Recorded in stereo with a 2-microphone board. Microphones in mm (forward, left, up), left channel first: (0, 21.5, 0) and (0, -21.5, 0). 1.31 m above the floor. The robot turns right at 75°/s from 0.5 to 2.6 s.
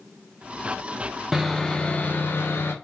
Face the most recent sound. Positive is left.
turn(degrees=90)